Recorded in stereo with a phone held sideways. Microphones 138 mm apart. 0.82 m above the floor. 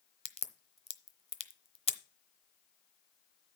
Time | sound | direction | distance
0.2 | a crack | 45° left (ahead or behind) | 0.8 m